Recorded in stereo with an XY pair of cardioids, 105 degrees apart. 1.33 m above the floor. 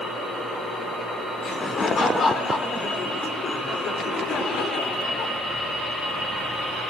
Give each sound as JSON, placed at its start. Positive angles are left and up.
{"t": 1.4, "sound": "laughter", "azimuth_deg": 40, "distance_m": 4.0}